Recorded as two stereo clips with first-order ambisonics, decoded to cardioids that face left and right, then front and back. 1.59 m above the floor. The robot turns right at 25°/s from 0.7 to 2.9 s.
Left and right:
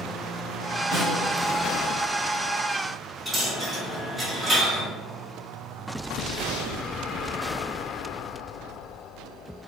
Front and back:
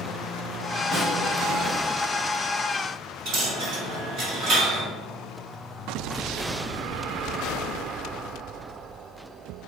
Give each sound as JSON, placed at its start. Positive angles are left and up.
{"t": 0.9, "sound": "a snare drum", "azimuth_deg": 90, "distance_m": 1.7}
{"t": 3.2, "sound": "a dropped coin", "azimuth_deg": -175, "distance_m": 1.3}